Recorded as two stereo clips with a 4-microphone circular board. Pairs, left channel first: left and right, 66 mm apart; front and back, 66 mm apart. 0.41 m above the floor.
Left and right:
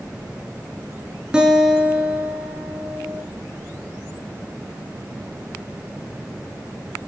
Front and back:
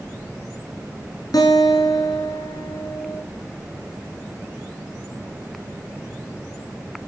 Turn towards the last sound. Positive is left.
turn(degrees=-10)